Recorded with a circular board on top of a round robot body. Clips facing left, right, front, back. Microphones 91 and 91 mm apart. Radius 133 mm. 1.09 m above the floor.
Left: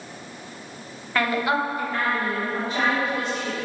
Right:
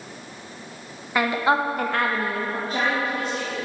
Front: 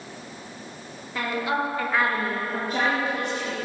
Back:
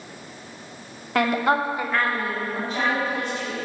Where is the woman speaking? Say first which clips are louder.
Right 2 dB, back 5 dB; 165° right, 1.2 m; by 3.6 s 30° right, 3 m.